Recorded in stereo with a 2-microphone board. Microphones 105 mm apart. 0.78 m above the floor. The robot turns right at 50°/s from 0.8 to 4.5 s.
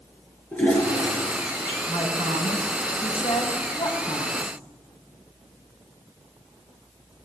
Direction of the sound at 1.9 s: 40° left.